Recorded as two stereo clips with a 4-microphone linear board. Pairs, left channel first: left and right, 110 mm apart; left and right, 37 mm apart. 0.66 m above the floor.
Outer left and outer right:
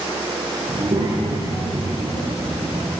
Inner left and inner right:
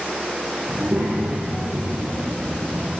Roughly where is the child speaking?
Right.